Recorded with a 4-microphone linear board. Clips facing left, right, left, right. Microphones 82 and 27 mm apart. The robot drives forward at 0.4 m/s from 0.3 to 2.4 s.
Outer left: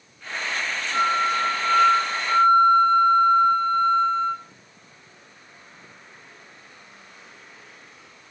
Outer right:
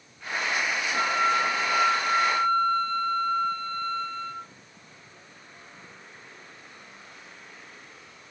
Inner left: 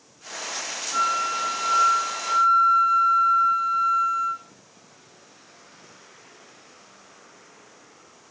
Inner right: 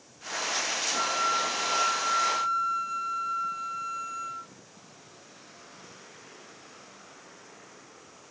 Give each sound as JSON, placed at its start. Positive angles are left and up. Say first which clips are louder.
{"t": 0.9, "sound": "a flute", "louder": "outer left 3 dB, inner left 5 dB", "side_deg": 50, "distance_m": 0.9}